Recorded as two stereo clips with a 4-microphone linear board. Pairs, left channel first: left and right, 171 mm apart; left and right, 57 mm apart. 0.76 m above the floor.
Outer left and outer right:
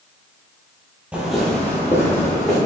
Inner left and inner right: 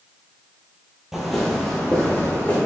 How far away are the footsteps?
About 1.1 m.